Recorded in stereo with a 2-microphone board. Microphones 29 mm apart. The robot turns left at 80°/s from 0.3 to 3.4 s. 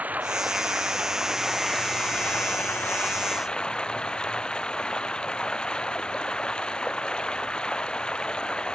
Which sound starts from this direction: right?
Running water, at 0.0 s.